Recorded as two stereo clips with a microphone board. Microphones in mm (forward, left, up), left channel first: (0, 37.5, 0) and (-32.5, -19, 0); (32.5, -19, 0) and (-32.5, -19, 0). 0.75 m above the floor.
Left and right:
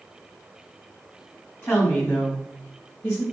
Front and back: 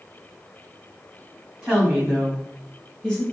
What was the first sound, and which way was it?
A woman speaking, 120° left.